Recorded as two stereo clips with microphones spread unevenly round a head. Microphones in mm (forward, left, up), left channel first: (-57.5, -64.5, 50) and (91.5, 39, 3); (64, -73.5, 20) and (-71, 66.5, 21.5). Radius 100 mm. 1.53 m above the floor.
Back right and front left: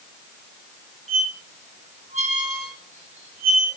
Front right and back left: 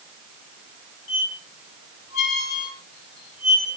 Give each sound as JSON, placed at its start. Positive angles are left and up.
{"t": 1.1, "sound": "a squeak", "azimuth_deg": -25, "distance_m": 3.5}